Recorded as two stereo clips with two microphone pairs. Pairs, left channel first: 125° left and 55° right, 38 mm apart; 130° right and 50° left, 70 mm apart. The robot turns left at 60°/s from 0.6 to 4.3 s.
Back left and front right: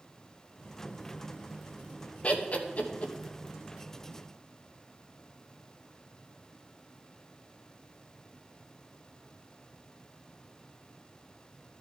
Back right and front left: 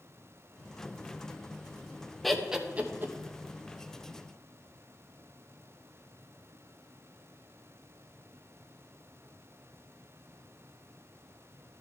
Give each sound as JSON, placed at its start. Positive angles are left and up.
{"t": 2.2, "sound": "laughter", "azimuth_deg": 145, "distance_m": 1.0}